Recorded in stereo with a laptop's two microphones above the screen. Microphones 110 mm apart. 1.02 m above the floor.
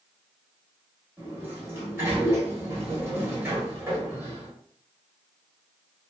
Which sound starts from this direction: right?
A sliding door, at 1.2 s.